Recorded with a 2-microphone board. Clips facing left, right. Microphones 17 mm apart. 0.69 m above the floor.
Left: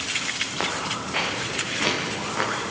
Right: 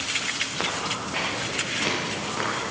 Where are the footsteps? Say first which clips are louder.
Left 1 dB; 10° left (ahead or behind), 4 m.